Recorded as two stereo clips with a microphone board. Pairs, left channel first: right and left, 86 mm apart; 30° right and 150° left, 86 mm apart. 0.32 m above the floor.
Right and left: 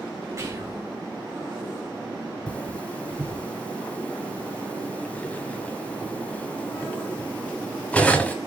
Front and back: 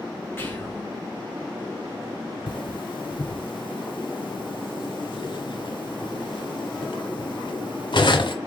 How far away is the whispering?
About 4 m.